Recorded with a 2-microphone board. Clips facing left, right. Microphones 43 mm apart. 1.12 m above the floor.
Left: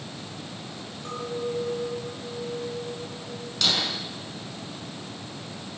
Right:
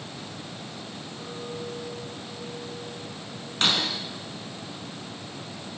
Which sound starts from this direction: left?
A clink, at 1.1 s.